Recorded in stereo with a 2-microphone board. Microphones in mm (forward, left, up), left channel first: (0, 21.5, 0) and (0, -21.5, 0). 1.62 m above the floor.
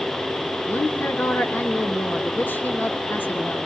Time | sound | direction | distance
0.7 | a woman speaking | 50° left (ahead or behind) | 3 m